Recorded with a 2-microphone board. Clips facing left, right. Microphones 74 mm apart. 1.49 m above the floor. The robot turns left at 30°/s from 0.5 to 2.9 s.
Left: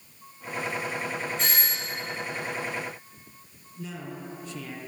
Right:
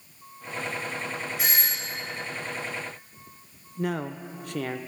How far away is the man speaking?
About 0.6 m.